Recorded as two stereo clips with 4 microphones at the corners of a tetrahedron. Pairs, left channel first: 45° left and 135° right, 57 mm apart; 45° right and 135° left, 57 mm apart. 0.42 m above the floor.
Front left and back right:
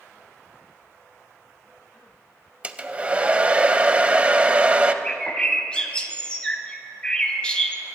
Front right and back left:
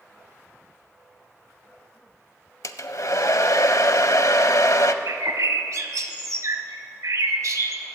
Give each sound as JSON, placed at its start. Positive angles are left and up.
{"t": 2.6, "sound": "a hair dryer", "azimuth_deg": -65, "distance_m": 0.5}
{"t": 5.0, "sound": "a bird", "azimuth_deg": 120, "distance_m": 0.9}